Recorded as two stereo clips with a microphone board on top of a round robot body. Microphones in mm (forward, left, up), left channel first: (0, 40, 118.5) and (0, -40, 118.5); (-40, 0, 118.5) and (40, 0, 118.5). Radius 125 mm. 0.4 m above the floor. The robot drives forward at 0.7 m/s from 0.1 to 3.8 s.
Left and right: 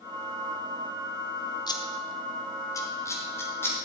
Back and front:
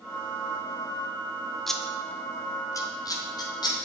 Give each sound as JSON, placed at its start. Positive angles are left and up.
{"t": 1.7, "sound": "scissors", "azimuth_deg": 95, "distance_m": 1.0}